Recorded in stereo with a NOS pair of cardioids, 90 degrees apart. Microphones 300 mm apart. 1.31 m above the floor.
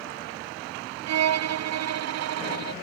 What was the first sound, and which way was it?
A violin, 60° right.